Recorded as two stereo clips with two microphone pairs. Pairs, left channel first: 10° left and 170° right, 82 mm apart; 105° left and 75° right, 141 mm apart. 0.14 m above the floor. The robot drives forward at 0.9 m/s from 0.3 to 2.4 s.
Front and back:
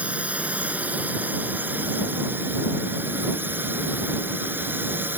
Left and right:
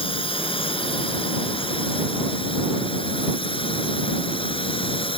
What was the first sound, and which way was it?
A drone, 125° left.